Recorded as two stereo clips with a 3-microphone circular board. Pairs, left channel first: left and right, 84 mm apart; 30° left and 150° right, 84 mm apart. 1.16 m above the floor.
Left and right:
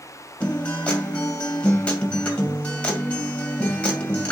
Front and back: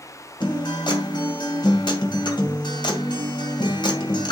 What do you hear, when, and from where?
0.4 s a guitar: 15° left, 2 m